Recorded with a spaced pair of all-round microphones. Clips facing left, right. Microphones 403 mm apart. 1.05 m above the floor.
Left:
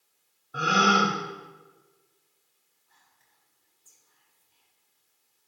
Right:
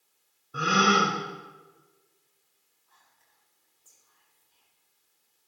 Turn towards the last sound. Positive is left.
turn(degrees=40)  # may be behind; listen again after turning